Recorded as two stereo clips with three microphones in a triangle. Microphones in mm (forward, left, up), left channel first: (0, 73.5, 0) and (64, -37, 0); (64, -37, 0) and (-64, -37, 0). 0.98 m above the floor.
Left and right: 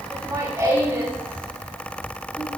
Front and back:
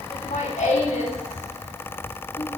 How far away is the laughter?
About 8 m.